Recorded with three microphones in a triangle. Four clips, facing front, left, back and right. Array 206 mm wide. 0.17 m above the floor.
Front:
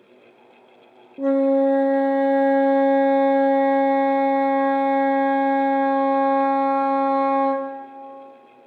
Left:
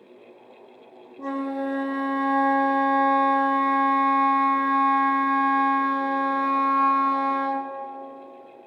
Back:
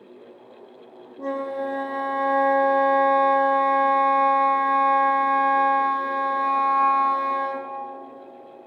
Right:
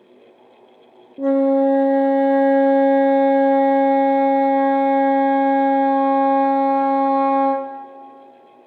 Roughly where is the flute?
Ahead right.